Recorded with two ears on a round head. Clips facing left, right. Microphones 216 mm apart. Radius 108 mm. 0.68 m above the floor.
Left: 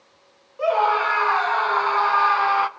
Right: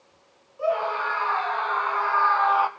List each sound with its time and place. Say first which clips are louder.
0.6 s a scream: left 4 dB; 75° left (ahead or behind), 2.5 m; by 2.7 s 25° left (ahead or behind), 0.9 m